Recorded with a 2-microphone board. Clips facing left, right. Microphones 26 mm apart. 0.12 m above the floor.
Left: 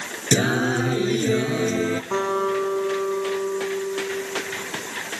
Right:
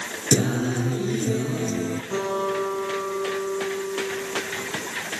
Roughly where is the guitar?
Left.